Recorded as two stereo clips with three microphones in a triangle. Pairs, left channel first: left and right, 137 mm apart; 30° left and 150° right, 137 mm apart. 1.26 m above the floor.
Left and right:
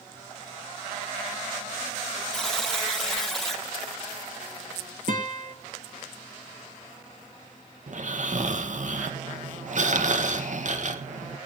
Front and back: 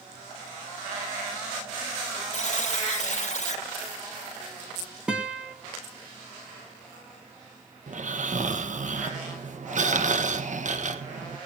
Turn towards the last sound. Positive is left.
turn(degrees=-120)